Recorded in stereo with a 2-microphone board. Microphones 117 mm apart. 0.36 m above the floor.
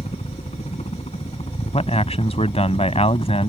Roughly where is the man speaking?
Left.